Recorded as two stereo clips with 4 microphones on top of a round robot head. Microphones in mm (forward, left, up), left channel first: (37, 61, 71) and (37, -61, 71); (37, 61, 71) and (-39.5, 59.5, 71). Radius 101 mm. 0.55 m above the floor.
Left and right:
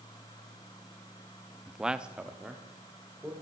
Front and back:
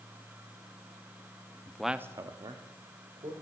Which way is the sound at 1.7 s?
5° right.